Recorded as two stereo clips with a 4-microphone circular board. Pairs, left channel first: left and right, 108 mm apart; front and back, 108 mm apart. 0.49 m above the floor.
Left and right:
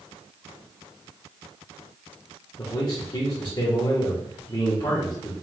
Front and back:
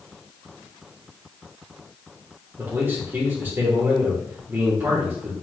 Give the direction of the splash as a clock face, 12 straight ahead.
No splash in this recording.